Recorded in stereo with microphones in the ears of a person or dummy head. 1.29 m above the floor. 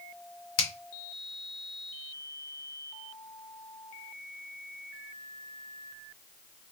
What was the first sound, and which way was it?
A finger snap, 75° left (ahead or behind).